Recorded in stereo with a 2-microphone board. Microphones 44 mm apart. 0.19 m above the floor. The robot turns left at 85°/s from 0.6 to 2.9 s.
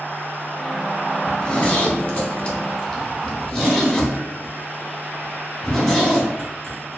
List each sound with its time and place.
1.3 s a zipper: 15° left (ahead or behind), 0.7 m; by 7.0 s 10° left (ahead or behind), 0.7 m